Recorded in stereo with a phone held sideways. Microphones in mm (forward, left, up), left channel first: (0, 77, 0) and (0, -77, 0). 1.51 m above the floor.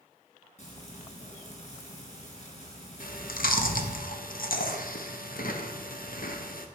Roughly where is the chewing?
Left.